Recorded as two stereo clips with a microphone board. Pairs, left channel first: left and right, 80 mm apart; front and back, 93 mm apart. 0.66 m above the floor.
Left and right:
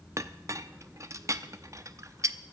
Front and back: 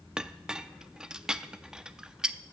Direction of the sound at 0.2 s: 100° right.